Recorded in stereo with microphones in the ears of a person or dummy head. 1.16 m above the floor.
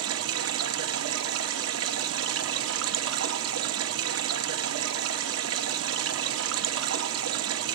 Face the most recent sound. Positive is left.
turn(degrees=-80)